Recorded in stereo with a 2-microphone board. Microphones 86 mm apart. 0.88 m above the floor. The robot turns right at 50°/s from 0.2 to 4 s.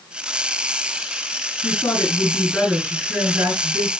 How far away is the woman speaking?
About 8 m.